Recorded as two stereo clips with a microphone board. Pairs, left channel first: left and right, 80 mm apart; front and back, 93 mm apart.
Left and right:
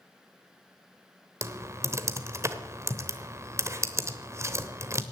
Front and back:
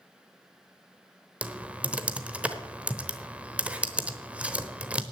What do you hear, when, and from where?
1.4 s typing on a keyboard: 110° right, 1.0 m